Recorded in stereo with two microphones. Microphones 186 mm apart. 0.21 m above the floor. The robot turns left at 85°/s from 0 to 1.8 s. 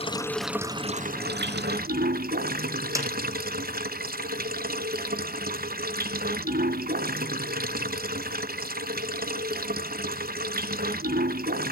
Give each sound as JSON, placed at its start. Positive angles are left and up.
{"t": 0.0, "sound": "running water", "azimuth_deg": 35, "distance_m": 0.7}
{"t": 3.0, "sound": "a snare drum", "side_deg": -15, "distance_m": 3.0}